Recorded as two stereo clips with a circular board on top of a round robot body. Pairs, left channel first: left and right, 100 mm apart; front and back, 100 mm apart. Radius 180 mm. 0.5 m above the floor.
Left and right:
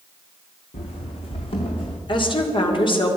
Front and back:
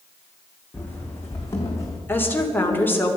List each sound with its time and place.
0.7 s running footsteps: 75° left, 2 m; by 2.0 s 55° left, 2.0 m
2.1 s a woman speaking: 70° left, 2.5 m